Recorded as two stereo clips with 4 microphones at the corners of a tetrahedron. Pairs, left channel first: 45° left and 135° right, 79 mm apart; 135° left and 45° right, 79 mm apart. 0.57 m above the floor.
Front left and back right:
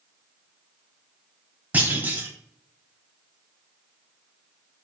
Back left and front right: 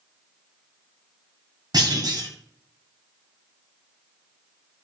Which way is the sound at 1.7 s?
70° right.